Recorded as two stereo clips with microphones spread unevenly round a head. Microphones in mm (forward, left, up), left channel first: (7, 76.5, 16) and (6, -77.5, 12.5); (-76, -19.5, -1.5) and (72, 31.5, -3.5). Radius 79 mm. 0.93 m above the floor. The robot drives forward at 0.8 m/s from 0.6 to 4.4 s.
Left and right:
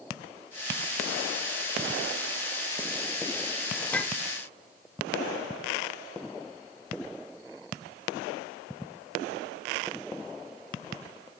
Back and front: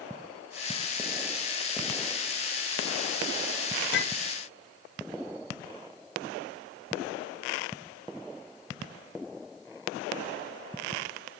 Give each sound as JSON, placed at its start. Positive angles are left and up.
{"t": 3.9, "sound": "a clink", "azimuth_deg": 170, "distance_m": 0.6}